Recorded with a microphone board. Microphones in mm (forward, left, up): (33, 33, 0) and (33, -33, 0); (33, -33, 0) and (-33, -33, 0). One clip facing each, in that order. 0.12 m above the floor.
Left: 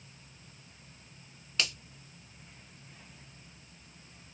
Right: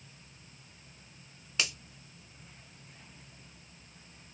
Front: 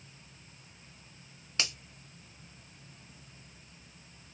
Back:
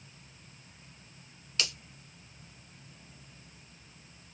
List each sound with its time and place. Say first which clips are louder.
1.6 s a finger snap: even, even; 20° right, 1.3 m